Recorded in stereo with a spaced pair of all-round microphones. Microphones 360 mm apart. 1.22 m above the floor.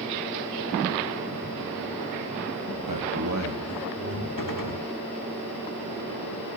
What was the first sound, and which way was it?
A man speaking, 70° right (ahead or behind).